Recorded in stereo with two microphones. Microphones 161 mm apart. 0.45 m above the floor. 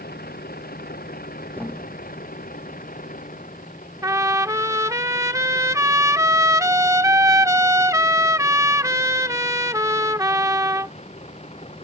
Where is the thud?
10° left (ahead or behind).